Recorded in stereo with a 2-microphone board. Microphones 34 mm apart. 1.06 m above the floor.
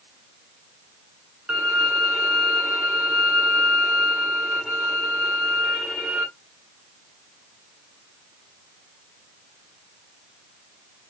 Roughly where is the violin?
Right.